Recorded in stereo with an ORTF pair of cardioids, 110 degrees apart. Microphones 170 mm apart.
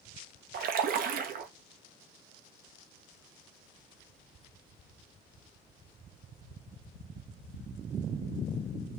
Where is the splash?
65° right, 0.7 m.